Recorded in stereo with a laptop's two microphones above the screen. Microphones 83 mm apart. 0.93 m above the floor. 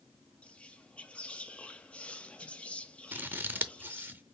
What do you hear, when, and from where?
0.4 s whispering: 15° left (ahead or behind), 1.2 m
3.1 s scissors: 25° right (ahead or behind), 0.7 m